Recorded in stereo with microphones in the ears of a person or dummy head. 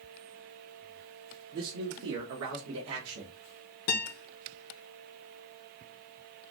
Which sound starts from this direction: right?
A man speaking, at 1.5 s.